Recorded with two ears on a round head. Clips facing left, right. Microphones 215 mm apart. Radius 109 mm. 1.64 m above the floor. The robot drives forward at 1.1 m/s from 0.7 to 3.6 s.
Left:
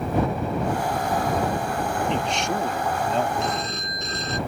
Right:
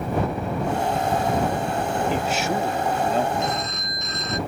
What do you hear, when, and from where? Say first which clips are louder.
2.1 s a man speaking: right 2 dB; 5° right (ahead or behind)
3.4 s a phone ringing: right 1 dB; 30° left (ahead or behind)